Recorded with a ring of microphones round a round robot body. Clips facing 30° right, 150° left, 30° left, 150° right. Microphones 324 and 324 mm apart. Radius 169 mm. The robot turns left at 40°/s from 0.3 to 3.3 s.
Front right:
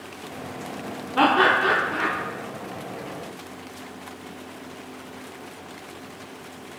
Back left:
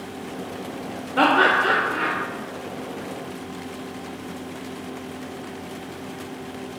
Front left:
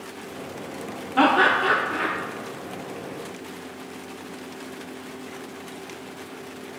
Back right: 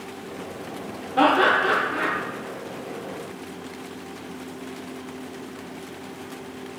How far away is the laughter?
About 0.9 m.